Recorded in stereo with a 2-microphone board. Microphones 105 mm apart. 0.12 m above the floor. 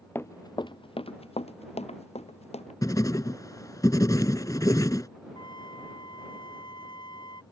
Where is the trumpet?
45° left (ahead or behind).